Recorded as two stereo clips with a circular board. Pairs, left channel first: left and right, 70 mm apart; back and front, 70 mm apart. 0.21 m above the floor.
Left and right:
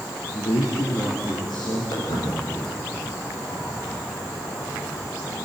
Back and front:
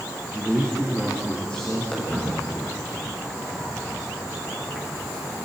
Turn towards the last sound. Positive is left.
turn(degrees=85)